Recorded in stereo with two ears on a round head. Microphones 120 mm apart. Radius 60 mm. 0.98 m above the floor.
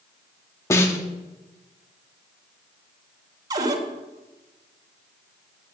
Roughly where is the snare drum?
Left.